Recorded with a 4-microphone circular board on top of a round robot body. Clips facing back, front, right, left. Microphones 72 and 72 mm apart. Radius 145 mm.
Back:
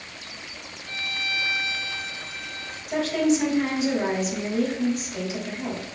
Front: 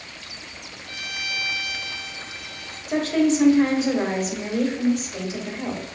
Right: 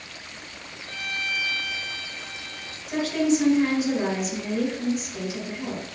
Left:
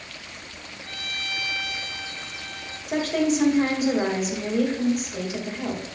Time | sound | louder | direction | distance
0.8 | a violin | back 2 dB, right 3 dB | 55° left | 2.5 m
2.9 | a woman speaking | front 2 dB, even | 55° left | 1.8 m